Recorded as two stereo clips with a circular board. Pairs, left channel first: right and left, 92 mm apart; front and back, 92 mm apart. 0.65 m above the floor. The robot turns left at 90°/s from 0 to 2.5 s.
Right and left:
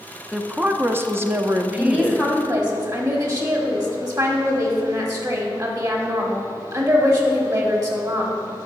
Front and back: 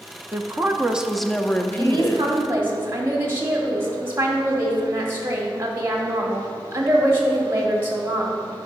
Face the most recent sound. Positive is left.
turn(degrees=120)